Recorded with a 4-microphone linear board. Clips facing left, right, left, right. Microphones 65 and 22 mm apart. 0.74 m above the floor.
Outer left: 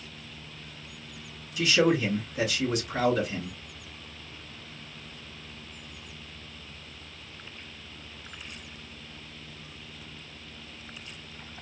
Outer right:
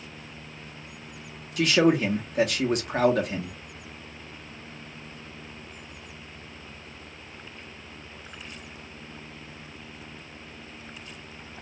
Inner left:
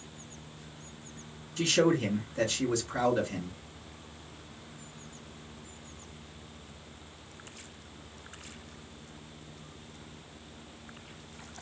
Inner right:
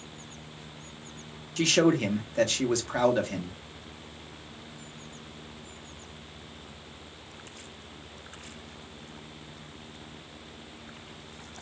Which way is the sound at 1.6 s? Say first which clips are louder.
Outer right 3 dB, inner right 3 dB; 55° right (ahead or behind).